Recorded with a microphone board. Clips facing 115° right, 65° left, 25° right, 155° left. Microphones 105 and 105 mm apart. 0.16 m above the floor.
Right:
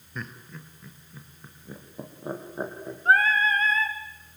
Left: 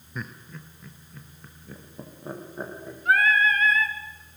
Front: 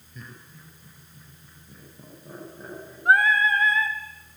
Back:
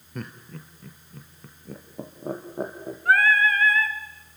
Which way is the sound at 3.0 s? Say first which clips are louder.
Even, even; 80° right.